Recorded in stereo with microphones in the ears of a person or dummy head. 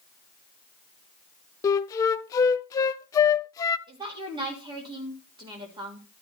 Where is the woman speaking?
30° right (ahead or behind), 3 m.